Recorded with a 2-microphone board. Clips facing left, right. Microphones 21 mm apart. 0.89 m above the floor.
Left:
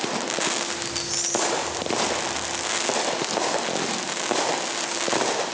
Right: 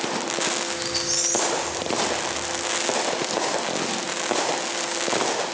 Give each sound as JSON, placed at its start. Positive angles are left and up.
{"t": 0.7, "sound": "a squeak", "side_deg": -70, "distance_m": 3.5}